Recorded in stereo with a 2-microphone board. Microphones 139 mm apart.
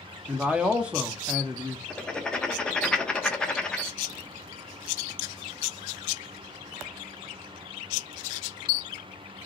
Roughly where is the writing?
Centre.